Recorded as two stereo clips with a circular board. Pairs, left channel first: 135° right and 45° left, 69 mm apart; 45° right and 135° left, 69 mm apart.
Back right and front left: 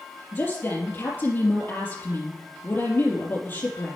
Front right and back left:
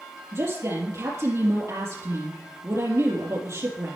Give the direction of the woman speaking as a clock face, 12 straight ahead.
6 o'clock.